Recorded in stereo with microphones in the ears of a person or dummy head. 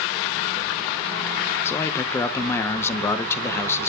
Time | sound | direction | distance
1.6 | a man speaking | 15° left (ahead or behind) | 0.9 m